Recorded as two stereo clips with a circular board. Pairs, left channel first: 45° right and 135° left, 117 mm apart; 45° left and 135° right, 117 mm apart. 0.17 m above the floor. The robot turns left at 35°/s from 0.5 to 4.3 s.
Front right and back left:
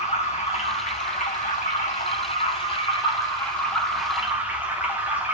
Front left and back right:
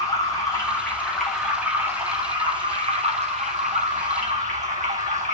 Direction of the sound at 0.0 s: 15° right.